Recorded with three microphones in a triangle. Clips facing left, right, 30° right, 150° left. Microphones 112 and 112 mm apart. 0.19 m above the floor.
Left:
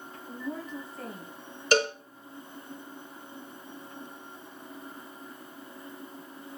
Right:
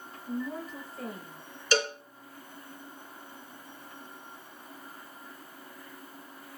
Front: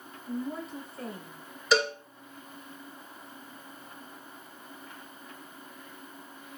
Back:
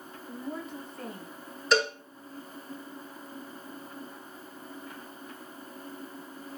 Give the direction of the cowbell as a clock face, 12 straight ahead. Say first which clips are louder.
Left 4 dB, even; 10 o'clock.